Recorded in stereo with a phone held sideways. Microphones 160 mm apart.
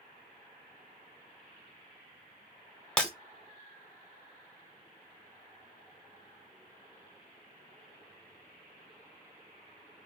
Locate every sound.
3.0 s breaking glass: 5° left (ahead or behind), 0.8 m